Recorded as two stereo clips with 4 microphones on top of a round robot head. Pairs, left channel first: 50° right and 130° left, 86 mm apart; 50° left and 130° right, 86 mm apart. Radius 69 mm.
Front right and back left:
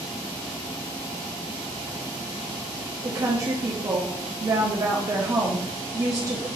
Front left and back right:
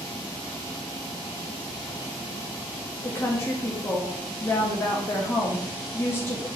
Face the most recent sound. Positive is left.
turn(degrees=100)